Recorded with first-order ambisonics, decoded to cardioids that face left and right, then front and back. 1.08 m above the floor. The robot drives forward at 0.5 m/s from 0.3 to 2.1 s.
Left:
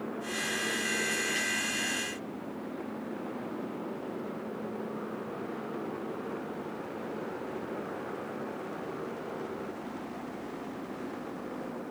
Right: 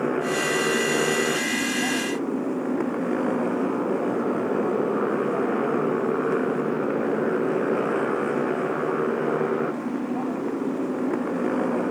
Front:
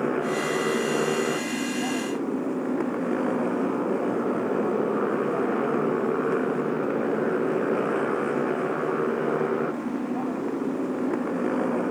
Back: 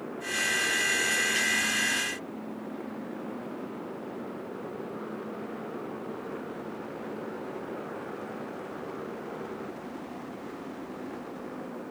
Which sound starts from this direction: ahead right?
A motorcycle, at 0.0 s.